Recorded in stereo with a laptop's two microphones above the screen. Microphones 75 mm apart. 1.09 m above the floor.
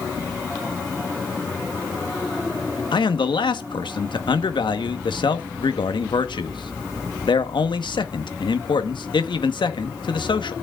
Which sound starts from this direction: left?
A man speaking, at 2.9 s.